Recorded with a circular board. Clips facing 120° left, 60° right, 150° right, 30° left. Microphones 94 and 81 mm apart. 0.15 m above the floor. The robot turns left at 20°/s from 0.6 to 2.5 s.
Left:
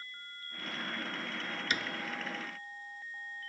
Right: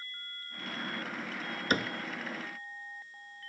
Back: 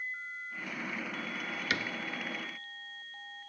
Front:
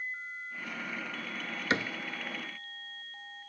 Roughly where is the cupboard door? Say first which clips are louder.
Right 7 dB, front 5 dB; ahead right.